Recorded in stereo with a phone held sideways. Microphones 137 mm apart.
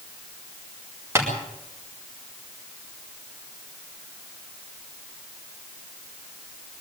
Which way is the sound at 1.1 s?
20° right (ahead or behind).